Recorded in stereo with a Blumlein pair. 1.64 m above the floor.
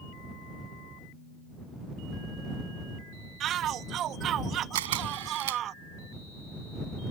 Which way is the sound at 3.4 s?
30° right.